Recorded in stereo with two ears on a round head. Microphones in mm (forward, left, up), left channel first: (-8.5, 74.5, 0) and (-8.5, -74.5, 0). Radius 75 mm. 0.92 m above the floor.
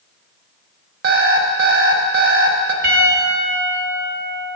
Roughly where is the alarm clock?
Right.